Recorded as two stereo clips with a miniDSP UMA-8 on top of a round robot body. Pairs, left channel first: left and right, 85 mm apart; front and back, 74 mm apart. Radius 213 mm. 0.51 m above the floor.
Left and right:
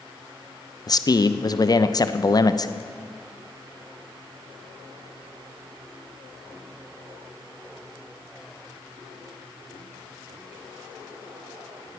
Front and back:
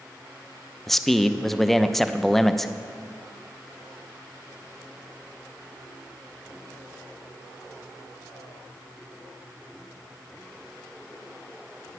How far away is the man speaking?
About 0.8 m.